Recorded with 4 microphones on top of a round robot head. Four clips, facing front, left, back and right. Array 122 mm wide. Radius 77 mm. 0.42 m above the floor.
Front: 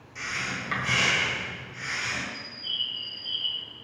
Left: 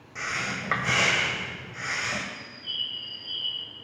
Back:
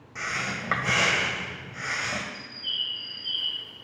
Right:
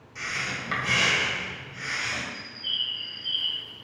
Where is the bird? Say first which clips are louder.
Right 2 dB, even; 125° right, 0.7 m.